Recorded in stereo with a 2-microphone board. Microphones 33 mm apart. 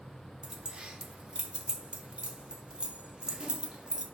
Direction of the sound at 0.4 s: 30° right (ahead or behind).